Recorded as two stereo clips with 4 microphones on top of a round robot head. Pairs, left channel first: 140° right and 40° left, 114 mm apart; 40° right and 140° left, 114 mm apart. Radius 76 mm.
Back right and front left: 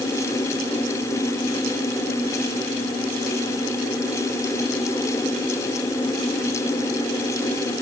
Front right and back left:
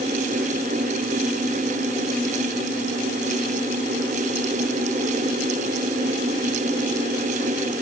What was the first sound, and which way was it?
Only background noise.